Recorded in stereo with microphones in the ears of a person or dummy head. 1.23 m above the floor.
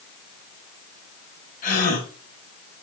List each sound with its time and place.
1.6 s a gasp: 50° left (ahead or behind), 5 m